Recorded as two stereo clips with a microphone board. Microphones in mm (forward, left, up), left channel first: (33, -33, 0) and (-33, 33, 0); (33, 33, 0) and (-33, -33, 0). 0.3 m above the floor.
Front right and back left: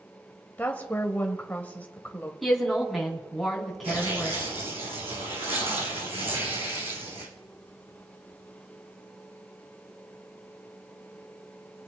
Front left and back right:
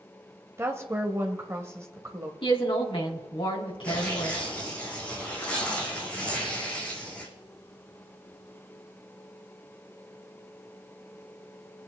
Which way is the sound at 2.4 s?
45° left.